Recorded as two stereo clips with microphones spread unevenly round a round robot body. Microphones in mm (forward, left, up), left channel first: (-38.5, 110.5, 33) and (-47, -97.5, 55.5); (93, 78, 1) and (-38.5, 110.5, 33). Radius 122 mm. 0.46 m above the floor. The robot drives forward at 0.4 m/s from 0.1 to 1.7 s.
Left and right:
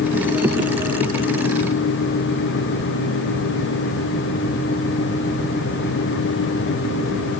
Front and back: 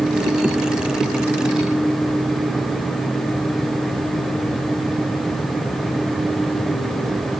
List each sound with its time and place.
Only background noise.